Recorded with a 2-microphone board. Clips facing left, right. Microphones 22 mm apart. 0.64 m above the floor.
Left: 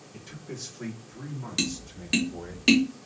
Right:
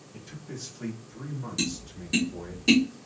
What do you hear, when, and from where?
0.1 s a man speaking: 25° left (ahead or behind), 1.1 m; by 2.6 s 15° left (ahead or behind), 1.5 m
1.6 s tapping: 40° left (ahead or behind), 0.8 m